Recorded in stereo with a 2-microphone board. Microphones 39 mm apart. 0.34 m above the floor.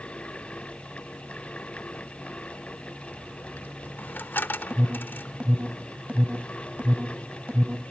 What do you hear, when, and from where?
3.1 s a dropped coin: 65° left (ahead or behind), 0.8 m
4.7 s an alarm: 40° right (ahead or behind), 1.5 m